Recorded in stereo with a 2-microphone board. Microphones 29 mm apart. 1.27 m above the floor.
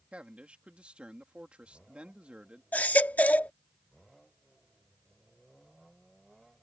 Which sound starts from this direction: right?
A man speaking, at 0.1 s.